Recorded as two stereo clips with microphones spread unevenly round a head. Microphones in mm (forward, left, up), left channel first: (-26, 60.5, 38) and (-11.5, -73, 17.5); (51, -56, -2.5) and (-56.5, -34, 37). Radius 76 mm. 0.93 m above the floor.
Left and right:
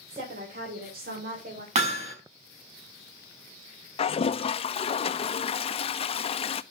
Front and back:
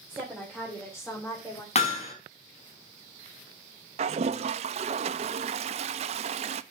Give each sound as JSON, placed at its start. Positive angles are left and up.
{"t": 0.1, "sound": "a woman speaking", "azimuth_deg": -115, "distance_m": 3.0}
{"t": 1.8, "sound": "hammering", "azimuth_deg": -35, "distance_m": 4.5}
{"t": 4.0, "sound": "a toilet flushing", "azimuth_deg": 135, "distance_m": 0.5}